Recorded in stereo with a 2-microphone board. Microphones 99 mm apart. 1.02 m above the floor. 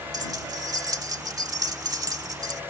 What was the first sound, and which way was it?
Keys jangling, 40° right (ahead or behind).